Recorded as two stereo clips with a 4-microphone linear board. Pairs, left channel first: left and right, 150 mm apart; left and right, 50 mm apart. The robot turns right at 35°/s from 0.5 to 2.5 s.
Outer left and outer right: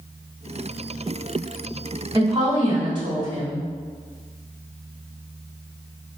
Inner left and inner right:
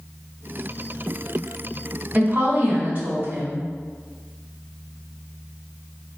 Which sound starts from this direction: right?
A woman speaking, at 2.1 s.